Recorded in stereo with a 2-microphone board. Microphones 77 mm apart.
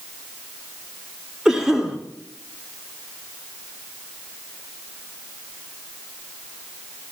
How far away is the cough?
About 2.5 m.